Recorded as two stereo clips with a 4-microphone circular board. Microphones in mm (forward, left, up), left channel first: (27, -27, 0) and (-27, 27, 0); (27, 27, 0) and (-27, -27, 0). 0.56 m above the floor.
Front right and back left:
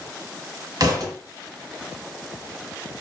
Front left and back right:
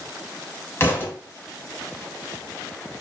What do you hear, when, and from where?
0.8 s a thud: 100° left, 1.2 m